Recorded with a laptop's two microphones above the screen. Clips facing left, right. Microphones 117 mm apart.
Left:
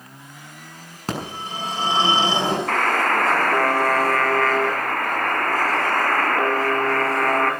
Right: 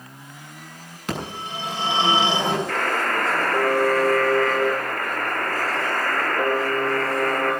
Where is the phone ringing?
40° left (ahead or behind), 7 m.